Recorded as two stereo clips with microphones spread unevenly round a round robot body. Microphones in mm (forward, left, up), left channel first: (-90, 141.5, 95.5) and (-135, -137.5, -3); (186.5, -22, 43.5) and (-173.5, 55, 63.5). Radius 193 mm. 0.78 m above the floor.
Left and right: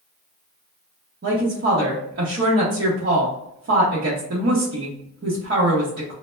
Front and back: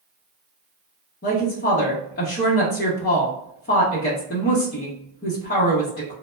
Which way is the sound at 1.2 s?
70° right.